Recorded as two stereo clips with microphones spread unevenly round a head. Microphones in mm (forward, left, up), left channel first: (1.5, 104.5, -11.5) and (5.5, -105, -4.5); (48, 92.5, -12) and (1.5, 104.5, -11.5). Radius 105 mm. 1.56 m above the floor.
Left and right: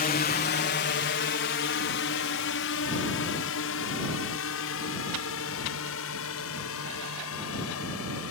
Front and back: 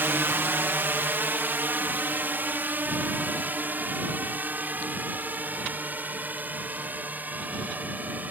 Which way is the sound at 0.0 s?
135° left.